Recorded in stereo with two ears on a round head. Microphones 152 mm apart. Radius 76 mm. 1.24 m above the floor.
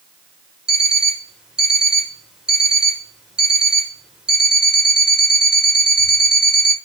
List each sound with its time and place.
0.7 s an alarm clock: 5° right (ahead or behind), 2 m